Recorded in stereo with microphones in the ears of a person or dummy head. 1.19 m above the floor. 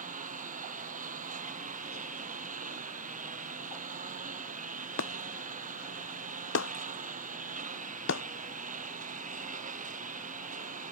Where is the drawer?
I don't hear a drawer.